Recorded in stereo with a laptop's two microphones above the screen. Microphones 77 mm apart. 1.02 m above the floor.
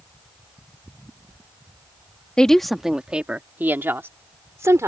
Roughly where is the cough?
No cough in this recording.